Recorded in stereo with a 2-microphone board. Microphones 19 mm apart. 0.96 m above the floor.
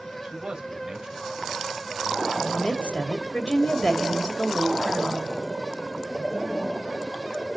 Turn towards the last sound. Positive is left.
turn(degrees=65)  # may be behind; listen again after turning